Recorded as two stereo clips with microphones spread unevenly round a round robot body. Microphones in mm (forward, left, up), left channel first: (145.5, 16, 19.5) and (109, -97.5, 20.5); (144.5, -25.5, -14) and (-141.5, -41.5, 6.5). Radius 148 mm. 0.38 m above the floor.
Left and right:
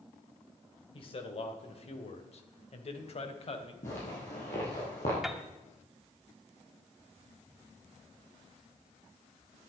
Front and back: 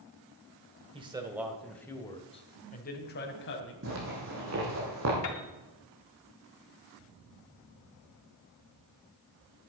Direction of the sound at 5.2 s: 20° right.